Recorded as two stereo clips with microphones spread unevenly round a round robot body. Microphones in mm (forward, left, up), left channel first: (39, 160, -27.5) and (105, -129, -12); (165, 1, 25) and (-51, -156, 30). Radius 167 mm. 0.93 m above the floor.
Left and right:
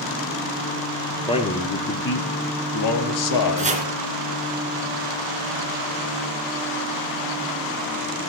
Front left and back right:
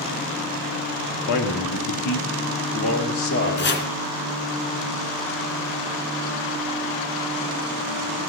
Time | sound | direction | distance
1.3 | a man speaking | 30° left | 1.7 m
3.6 | chopping | 10° right | 2.5 m